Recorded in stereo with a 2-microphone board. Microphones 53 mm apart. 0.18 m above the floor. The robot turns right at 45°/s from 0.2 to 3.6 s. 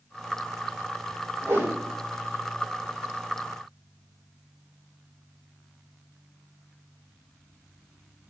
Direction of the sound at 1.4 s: 55° right (ahead or behind).